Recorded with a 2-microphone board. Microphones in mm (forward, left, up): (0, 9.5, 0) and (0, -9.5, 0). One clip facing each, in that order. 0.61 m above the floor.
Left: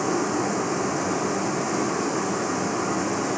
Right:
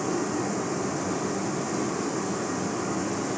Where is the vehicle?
25° left (ahead or behind).